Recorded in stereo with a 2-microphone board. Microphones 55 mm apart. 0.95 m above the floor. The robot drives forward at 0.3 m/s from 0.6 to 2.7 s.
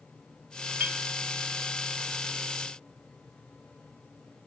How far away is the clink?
About 1.8 m.